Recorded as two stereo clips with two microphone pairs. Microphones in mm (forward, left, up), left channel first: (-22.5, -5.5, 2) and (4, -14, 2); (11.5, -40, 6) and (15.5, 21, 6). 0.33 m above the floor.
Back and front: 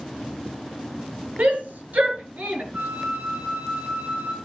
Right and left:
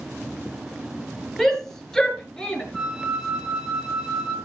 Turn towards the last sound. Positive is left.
turn(degrees=0)